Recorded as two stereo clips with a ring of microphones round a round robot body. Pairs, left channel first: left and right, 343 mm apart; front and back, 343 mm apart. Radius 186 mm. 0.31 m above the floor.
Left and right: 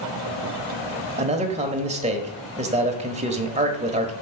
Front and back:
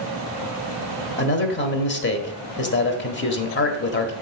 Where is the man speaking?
30° right, 1.2 m.